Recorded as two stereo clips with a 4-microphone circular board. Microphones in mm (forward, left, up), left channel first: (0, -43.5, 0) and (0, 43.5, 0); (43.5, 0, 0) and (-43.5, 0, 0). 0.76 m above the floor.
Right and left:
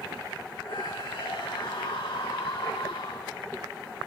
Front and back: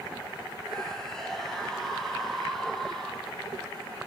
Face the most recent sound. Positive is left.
turn(degrees=-85)